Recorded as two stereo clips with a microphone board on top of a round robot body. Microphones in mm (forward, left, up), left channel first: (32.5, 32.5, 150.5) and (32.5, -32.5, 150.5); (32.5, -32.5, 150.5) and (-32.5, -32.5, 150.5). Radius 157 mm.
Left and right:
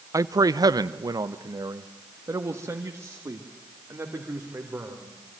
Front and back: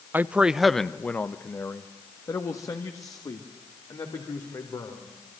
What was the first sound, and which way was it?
A man speaking, 120° right.